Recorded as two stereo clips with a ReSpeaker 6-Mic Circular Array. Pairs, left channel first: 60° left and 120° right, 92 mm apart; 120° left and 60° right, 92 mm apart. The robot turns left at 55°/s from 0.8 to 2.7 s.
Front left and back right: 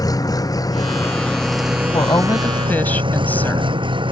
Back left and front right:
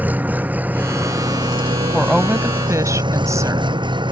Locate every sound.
0.0 s an engine running: 10° left; by 4.1 s 95° right
1.9 s a woman speaking: 35° left; by 3.7 s 10° right